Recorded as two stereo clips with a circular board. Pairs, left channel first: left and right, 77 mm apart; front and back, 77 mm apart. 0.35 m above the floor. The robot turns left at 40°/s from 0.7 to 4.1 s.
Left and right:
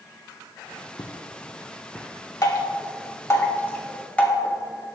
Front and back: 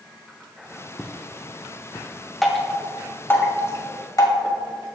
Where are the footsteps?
95° left, 1.6 m; by 2.3 s 5° left, 1.6 m.